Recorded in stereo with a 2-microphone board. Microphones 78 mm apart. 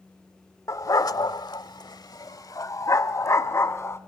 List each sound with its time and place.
0.7 s a dog barking: 45° left (ahead or behind), 0.9 m; by 4.0 s 35° left (ahead or behind), 2.0 m